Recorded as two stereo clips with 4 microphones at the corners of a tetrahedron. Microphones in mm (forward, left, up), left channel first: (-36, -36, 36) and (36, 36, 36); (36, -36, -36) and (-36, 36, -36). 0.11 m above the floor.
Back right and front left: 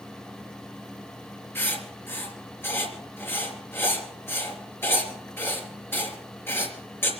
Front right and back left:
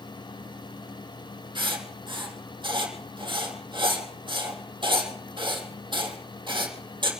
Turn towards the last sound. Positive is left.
turn(degrees=160)